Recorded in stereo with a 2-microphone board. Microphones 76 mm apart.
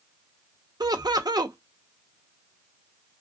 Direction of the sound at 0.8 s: 65° right (ahead or behind).